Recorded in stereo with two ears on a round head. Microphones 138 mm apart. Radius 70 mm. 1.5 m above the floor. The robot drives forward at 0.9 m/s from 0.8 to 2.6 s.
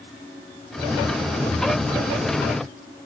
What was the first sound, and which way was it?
Only background noise.